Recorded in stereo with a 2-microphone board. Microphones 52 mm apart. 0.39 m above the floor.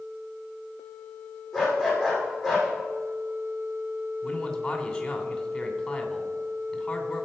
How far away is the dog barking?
About 6.5 m.